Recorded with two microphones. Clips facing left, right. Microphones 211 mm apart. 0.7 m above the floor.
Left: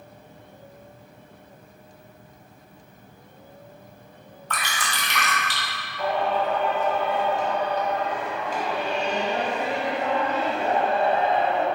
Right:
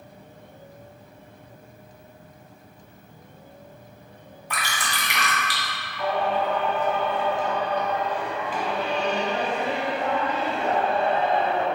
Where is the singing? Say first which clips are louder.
Even; 40° left (ahead or behind), 1.1 m.